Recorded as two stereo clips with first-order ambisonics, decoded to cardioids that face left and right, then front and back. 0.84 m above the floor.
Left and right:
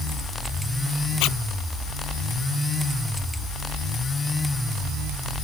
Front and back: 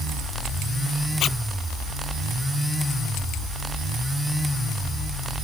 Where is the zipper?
55° left.